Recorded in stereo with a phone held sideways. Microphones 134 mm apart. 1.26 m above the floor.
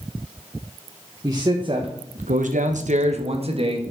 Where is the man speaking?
25° right (ahead or behind), 1.7 m; by 3.8 s 40° right (ahead or behind), 2.5 m.